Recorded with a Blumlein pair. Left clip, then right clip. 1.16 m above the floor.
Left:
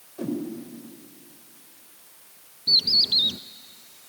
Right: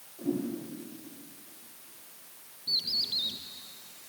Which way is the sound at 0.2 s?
35° left.